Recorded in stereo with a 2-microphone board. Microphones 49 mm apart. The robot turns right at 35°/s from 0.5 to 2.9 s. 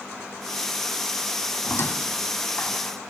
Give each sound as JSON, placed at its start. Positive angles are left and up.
{"t": 1.6, "sound": "a squeak", "side_deg": 55, "distance_m": 1.8}